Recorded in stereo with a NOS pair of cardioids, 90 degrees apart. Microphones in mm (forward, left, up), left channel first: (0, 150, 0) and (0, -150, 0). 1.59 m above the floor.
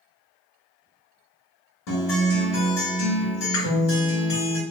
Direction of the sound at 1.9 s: 70° left.